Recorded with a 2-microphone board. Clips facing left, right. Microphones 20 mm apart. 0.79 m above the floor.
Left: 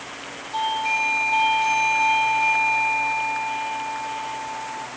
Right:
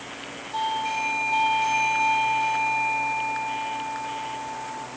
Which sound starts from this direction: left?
A doorbell, at 0.5 s.